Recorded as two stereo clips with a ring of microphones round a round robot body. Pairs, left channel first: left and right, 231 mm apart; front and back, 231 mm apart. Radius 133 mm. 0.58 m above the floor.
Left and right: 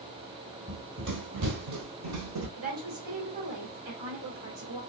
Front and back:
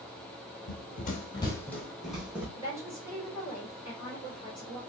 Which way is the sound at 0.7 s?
20° right.